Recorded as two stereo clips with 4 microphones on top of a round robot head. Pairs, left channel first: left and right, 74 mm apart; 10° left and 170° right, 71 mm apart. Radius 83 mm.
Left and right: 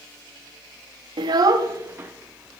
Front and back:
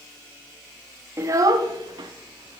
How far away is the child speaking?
About 0.7 m.